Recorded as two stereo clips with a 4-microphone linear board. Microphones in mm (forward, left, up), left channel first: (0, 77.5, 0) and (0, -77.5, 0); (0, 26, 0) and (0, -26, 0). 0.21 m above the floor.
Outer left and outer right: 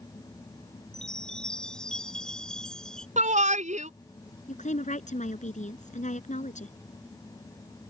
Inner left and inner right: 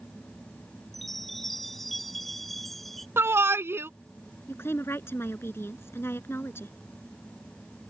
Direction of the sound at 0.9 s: 5° left (ahead or behind).